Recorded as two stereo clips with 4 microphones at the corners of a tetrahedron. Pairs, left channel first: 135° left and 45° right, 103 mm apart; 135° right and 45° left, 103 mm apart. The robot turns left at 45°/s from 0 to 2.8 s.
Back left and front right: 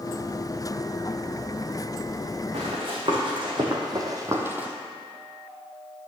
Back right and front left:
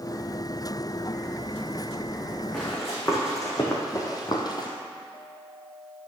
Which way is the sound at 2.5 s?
60° right.